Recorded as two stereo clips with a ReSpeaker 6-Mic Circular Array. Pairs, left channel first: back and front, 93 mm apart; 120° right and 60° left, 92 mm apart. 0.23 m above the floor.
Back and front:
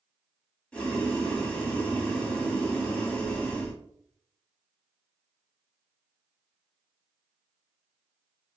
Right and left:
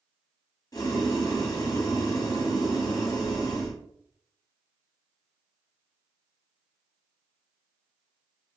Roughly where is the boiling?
Right.